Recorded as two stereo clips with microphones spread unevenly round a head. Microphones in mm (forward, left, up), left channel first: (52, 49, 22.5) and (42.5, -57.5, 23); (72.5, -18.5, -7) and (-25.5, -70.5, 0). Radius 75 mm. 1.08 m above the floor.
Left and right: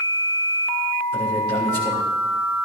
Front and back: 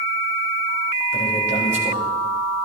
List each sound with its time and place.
1.1 s a man speaking: 155° right, 4 m